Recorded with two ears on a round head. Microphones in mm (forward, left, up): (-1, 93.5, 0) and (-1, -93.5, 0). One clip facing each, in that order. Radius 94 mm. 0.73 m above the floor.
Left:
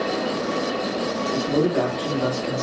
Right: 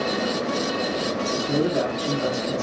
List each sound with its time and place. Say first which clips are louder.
1.3 s a man speaking: left 3 dB; 60° left (ahead or behind), 2.5 m